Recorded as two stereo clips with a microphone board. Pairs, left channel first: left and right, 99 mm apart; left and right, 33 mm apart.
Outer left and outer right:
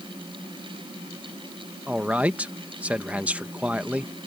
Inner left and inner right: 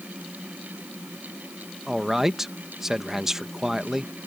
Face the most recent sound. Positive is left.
turn(degrees=-15)  # may be behind; listen again after turning